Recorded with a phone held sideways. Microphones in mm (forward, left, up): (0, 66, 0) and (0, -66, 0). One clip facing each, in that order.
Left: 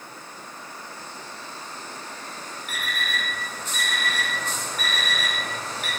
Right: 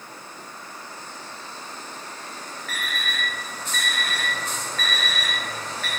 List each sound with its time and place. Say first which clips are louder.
2.7 s an alarm clock: left 1 dB; 15° left (ahead or behind), 1.0 m